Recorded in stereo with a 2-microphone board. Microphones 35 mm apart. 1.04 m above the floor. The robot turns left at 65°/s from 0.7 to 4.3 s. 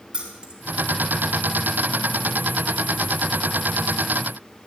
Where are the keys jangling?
25° right (ahead or behind), 2.5 m.